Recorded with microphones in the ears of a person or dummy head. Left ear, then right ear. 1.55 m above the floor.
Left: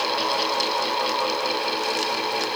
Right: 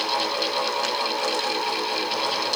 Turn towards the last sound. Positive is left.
No sound to turn to.